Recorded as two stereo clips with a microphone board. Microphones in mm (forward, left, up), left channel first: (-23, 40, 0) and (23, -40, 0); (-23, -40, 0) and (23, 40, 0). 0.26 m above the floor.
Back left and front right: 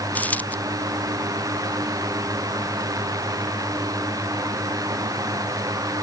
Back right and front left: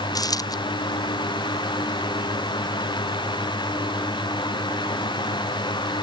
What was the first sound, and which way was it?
A dropped coin, 165° right.